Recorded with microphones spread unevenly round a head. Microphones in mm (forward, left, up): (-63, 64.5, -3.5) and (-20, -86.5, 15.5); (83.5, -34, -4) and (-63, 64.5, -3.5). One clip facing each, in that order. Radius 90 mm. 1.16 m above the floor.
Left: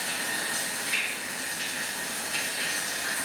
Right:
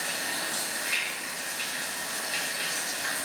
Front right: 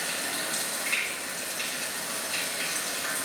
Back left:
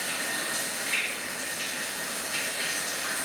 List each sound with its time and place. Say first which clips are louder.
0.0 s running water: even, even; 60° right, 1.3 m